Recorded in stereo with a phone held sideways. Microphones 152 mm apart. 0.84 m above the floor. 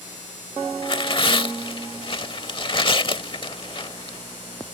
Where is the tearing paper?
35° left (ahead or behind).